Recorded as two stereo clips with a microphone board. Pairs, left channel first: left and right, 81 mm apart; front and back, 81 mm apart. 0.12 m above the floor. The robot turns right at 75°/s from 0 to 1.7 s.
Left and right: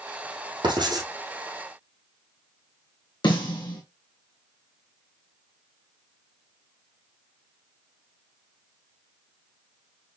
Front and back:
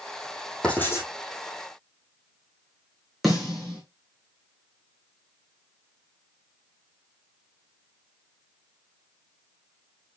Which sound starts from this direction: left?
A snare drum, at 3.2 s.